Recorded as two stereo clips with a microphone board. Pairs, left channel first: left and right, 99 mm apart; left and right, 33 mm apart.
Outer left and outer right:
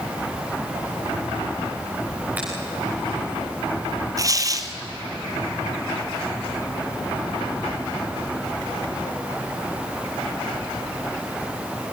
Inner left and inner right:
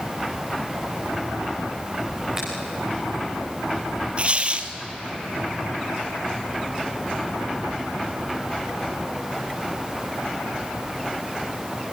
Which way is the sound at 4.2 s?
35° right (ahead or behind).